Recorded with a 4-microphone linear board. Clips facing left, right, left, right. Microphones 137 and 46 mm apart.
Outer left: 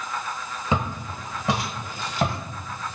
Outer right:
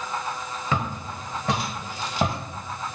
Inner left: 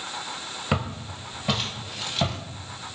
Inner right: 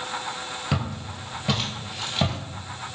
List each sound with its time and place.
0.7 s footsteps: 20° left (ahead or behind), 1.0 m; by 2.4 s 15° right (ahead or behind), 1.2 m